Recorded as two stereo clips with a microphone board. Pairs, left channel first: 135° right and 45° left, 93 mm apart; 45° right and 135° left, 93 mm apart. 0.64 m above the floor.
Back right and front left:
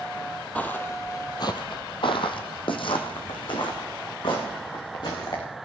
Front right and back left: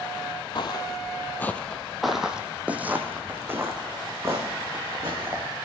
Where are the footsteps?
60° right, 1.1 m; by 5.4 s 170° right, 3.5 m.